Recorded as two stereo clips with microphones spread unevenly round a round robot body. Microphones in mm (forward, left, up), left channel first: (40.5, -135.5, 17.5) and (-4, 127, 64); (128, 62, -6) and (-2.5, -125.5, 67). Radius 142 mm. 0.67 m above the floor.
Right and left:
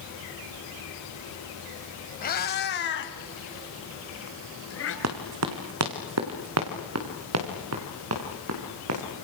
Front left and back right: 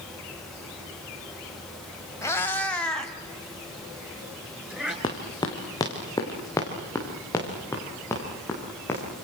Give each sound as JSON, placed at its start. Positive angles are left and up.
{"t": 2.2, "sound": "a cat meowing", "azimuth_deg": -20, "distance_m": 2.0}
{"t": 5.0, "sound": "running footsteps", "azimuth_deg": 135, "distance_m": 3.0}